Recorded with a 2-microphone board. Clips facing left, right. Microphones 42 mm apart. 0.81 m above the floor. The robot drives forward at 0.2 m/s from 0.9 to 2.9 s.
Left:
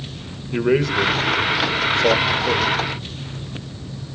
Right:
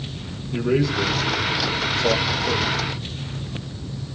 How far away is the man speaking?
About 2.5 m.